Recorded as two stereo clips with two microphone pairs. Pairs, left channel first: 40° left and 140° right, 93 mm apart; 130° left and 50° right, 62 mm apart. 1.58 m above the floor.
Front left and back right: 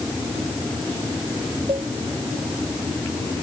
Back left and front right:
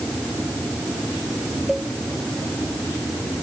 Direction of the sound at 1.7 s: 130° right.